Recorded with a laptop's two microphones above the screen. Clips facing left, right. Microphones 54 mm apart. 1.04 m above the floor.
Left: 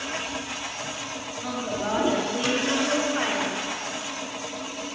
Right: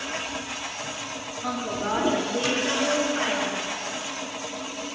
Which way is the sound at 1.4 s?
5° right (ahead or behind).